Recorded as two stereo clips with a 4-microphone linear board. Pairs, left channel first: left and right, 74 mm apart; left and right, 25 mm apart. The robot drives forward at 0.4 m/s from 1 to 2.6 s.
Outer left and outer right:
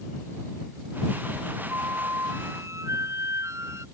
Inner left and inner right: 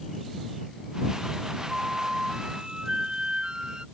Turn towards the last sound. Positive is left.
turn(degrees=-40)  # may be behind; listen again after turning